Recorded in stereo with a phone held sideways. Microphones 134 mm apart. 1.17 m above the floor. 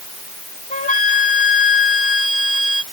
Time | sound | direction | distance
0.7 | a flute | 80° left | ?